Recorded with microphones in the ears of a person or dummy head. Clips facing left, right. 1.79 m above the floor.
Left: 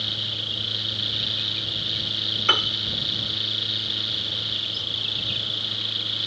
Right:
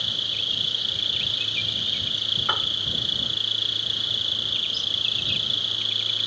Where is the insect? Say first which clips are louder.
Left 3 dB; 45° right (ahead or behind).